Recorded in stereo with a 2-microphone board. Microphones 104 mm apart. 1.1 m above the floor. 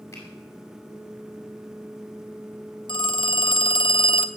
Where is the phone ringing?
50° left (ahead or behind), 0.6 m.